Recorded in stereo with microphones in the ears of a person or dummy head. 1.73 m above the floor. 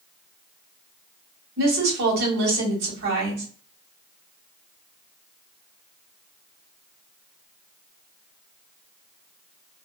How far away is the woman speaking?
About 1.4 m.